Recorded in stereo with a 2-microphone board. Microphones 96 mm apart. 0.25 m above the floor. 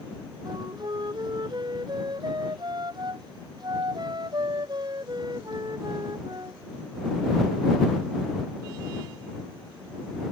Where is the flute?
50° right (ahead or behind).